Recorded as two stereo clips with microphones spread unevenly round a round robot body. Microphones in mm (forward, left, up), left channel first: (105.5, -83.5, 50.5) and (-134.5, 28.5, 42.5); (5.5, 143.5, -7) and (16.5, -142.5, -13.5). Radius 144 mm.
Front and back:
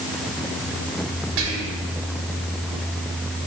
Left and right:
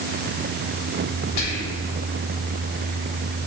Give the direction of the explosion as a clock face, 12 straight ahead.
No explosion in this recording.